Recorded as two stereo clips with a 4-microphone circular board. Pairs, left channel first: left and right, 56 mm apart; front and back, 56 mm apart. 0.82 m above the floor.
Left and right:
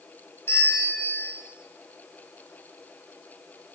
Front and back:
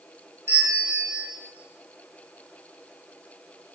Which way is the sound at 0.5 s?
135° left.